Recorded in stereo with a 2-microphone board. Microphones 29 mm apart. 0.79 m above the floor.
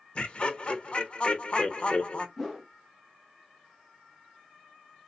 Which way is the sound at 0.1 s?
40° left (ahead or behind).